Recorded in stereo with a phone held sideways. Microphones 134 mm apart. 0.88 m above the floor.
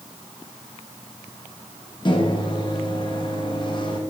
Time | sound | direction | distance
2.0 | a microwave | 35° left (ahead or behind) | 0.9 m